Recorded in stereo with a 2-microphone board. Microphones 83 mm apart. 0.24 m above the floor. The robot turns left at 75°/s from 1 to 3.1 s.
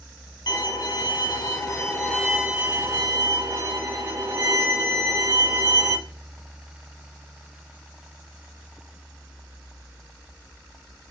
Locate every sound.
0.5 s a violin: 95° left, 1.2 m; by 6.0 s 65° right, 1.2 m